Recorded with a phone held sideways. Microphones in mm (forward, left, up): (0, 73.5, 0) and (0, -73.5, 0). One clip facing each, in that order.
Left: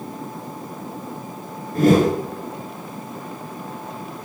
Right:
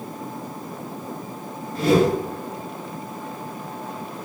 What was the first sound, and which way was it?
A whoosh, 55° left (ahead or behind).